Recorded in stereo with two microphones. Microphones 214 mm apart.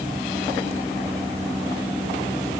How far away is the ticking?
No ticking in this recording.